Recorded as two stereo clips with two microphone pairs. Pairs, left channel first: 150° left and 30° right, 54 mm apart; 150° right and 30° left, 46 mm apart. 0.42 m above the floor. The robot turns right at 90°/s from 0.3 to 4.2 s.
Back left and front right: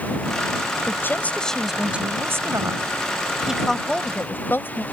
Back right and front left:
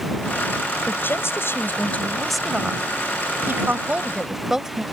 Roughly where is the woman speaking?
Behind.